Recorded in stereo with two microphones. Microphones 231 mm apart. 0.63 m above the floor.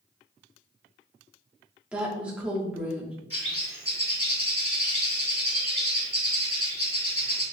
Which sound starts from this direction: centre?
A woman speaking, at 1.9 s.